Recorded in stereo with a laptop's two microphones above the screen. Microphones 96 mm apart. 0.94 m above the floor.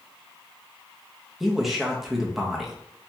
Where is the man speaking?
5° right (ahead or behind), 0.7 m.